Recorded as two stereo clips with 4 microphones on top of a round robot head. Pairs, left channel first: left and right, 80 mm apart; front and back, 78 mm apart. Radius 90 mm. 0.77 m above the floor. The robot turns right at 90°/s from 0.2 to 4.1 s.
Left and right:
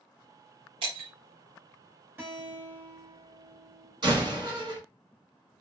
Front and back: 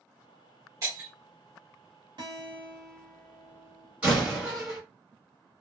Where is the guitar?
155° right, 1.1 m; by 3.9 s straight ahead, 1.1 m.